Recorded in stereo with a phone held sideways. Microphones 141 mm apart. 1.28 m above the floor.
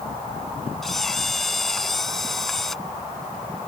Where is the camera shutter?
Centre (ahead or behind).